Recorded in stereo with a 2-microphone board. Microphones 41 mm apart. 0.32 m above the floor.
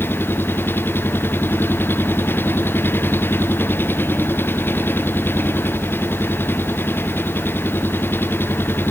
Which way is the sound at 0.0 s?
55° left (ahead or behind).